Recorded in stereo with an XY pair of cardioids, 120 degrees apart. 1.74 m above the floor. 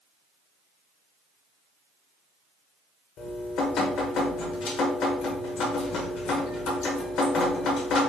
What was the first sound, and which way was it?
Dripping, 70° left.